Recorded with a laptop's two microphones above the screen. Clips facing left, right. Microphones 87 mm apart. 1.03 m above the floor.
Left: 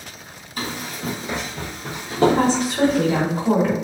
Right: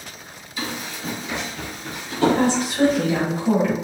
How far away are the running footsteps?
About 1.6 m.